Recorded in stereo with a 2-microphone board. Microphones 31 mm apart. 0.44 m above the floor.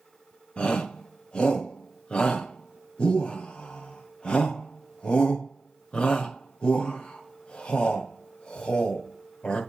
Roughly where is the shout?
Left.